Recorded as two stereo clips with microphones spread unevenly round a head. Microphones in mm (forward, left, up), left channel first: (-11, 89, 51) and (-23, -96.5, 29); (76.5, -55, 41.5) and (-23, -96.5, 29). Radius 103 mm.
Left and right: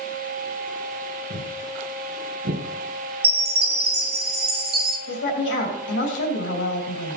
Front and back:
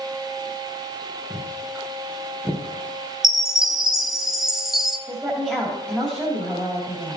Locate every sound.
1.3 s footsteps: 55° right, 4.5 m; by 2.6 s 60° right, 3.5 m
3.2 s a chime: 65° right, 0.8 m
5.1 s a woman speaking: 110° left, 3 m